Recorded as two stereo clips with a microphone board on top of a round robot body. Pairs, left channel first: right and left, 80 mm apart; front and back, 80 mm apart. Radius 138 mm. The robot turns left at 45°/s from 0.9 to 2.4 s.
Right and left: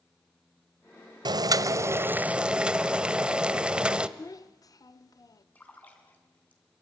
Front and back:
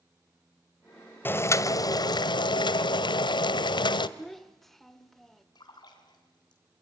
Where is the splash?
20° right, 3.5 m.